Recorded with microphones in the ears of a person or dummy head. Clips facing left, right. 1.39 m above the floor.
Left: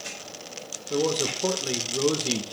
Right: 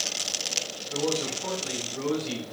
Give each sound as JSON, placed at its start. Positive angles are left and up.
{"t": 0.9, "sound": "a man speaking", "side_deg": 55, "distance_m": 1.5}